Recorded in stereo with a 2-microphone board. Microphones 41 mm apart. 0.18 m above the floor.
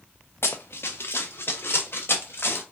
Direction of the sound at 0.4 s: 75° left (ahead or behind).